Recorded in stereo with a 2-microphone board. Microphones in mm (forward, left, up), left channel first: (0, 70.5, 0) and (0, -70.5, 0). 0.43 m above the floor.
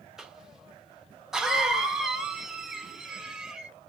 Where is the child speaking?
No child speaking in this recording.